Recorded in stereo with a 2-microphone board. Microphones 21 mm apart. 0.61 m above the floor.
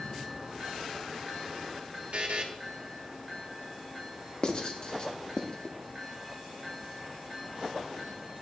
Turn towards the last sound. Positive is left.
turn(degrees=45)  # may be behind; listen again after turning